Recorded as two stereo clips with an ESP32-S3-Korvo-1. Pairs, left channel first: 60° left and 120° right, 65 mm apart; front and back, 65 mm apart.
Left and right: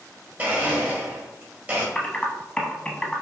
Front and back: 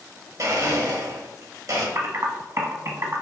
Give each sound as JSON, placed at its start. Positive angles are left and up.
{"t": 0.4, "sound": "a blender", "azimuth_deg": 180, "distance_m": 1.5}
{"t": 1.9, "sound": "typing on a keyboard", "azimuth_deg": 135, "distance_m": 0.9}